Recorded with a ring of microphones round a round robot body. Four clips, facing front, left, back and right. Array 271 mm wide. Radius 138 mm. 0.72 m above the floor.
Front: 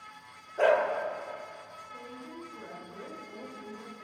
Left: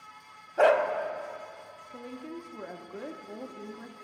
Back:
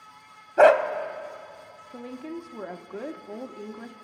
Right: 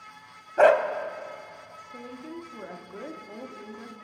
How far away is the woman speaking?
About 1.0 m.